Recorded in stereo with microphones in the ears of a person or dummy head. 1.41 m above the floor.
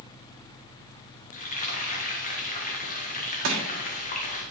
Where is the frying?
40° left (ahead or behind), 1.0 m.